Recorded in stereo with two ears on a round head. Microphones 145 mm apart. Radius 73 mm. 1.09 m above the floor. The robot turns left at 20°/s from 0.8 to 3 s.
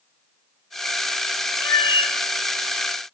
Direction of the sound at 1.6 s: 25° left (ahead or behind).